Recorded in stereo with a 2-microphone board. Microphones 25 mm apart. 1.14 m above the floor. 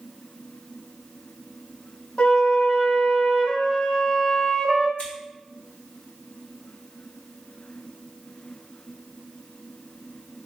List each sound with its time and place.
2.2 s a flute: 45° left (ahead or behind), 0.9 m
5.0 s scissors: 70° left (ahead or behind), 1.8 m